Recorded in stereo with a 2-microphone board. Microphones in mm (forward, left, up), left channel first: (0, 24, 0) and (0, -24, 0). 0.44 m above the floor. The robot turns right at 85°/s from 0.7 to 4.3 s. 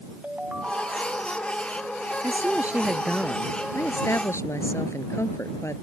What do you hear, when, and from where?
0.2 s a ringtone: 150° right; by 1.3 s 100° right
2.2 s a woman speaking: 75° right; by 5.7 s 100° left